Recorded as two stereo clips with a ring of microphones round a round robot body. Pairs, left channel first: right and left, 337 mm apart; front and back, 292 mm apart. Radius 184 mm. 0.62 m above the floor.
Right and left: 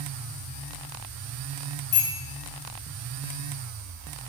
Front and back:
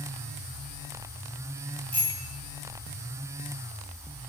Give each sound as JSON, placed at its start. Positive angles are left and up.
{"t": 1.9, "sound": "a bicycle bell", "azimuth_deg": -85, "distance_m": 6.5}